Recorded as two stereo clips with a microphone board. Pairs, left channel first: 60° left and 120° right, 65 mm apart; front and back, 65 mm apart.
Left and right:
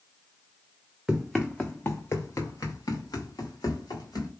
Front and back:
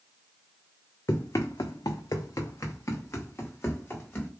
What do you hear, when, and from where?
1.1 s running footsteps: 35° right, 0.6 m; by 4.3 s 60° left, 1.5 m